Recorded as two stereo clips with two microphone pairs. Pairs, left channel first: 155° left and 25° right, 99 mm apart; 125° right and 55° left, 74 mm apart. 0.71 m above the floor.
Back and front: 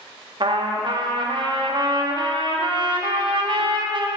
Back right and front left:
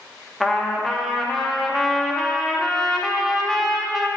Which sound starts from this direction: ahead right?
A trumpet, at 0.4 s.